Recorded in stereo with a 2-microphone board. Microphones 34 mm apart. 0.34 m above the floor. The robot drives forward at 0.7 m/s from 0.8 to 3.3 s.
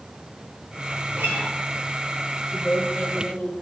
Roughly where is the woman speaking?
Left.